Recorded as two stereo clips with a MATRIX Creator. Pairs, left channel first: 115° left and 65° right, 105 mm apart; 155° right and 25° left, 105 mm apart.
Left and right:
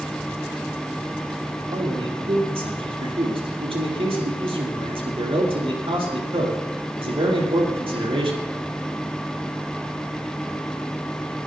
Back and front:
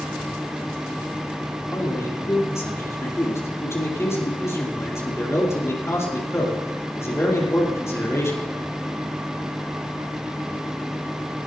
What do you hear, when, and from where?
1.7 s a man speaking: 95° right, 5 m